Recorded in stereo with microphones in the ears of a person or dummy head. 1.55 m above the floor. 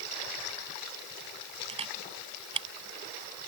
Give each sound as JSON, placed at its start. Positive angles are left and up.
{"t": 1.7, "sound": "a camera shutter", "side_deg": -25}